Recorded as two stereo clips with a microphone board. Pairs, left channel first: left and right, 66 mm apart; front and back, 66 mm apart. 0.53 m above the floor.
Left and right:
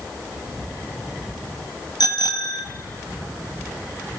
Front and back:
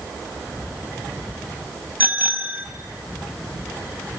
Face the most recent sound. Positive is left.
turn(degrees=115)